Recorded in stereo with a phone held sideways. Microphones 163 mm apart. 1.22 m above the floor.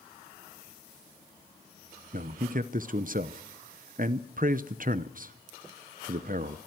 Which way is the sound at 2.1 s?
55° right (ahead or behind).